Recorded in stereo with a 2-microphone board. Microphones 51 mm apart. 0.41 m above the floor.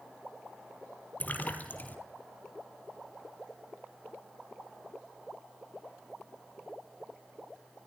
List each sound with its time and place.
1.2 s a splash: 35° left (ahead or behind), 1.9 m